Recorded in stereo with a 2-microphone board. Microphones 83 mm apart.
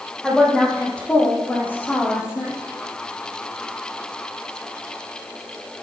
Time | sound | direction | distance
0.2 | a woman speaking | 5° left (ahead or behind) | 5.5 m